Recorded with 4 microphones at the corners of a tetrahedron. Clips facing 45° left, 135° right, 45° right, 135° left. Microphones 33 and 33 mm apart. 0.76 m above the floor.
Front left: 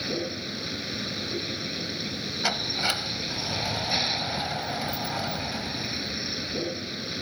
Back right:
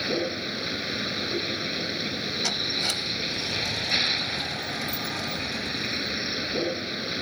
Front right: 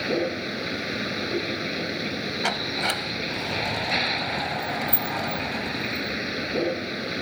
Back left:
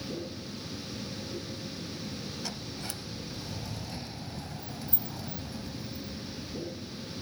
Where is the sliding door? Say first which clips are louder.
Front left 2 dB, front right 14 dB; 20° right.